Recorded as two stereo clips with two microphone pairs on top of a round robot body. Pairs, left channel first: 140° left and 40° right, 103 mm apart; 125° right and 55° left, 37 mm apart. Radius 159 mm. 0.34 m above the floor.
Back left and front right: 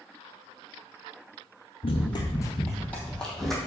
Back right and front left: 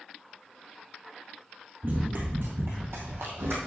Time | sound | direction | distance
1.8 | running footsteps | 100° left | 0.8 m